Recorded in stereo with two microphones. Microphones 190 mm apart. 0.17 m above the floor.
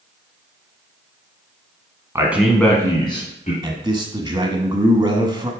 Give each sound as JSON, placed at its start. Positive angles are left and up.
{"t": 2.1, "sound": "a man speaking", "side_deg": -15, "distance_m": 1.3}
{"t": 3.6, "sound": "a man speaking", "side_deg": -25, "distance_m": 1.0}